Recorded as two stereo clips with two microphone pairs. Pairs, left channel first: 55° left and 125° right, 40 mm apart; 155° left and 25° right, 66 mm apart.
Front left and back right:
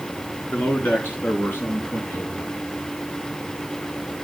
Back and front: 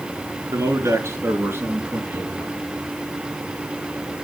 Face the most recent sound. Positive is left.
turn(degrees=45)